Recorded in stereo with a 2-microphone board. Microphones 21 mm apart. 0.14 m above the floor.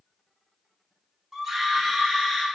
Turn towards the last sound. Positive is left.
turn(degrees=0)  # may be behind; listen again after turning